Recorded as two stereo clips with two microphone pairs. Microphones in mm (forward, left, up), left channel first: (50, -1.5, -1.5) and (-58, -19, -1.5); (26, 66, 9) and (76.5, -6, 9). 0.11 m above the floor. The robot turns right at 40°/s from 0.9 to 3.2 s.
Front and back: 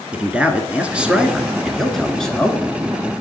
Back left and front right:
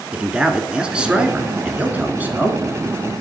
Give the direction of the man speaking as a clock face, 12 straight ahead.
4 o'clock.